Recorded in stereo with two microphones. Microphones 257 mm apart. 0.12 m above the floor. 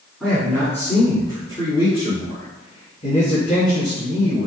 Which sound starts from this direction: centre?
A man speaking, at 0.2 s.